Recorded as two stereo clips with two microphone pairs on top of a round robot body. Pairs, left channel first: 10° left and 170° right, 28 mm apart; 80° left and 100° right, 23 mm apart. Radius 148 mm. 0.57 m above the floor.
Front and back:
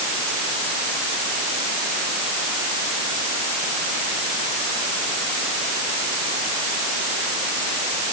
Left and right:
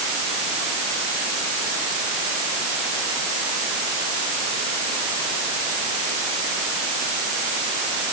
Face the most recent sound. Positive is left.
No sound to turn to.